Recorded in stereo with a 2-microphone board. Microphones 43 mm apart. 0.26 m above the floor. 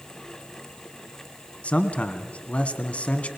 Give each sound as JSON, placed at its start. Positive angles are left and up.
{"t": 1.6, "sound": "a man speaking", "side_deg": 30, "distance_m": 1.9}